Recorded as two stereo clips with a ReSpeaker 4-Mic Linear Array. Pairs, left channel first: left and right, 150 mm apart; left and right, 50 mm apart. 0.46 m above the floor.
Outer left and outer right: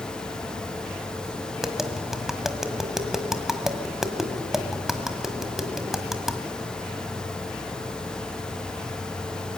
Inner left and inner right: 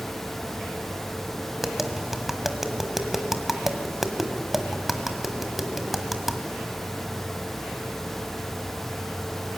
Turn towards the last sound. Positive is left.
turn(degrees=-5)  # may be behind; listen again after turning